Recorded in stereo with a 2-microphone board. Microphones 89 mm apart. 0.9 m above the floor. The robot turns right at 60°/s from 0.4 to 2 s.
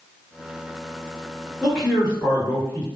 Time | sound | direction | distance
1.6 | a man speaking | 5° right (ahead or behind) | 1.9 m